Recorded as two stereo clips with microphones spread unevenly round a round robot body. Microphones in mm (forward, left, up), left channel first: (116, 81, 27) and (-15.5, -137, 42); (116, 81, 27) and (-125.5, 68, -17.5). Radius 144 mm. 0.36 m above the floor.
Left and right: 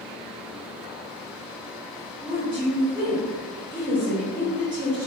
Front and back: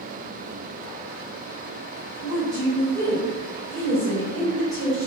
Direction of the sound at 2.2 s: 175° right.